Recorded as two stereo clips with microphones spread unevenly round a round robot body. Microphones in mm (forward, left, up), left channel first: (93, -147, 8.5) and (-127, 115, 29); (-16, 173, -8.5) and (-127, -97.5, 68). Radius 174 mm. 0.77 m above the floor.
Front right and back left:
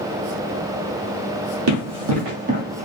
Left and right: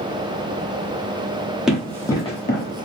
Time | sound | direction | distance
1.7 | running footsteps | 170° left | 1.5 m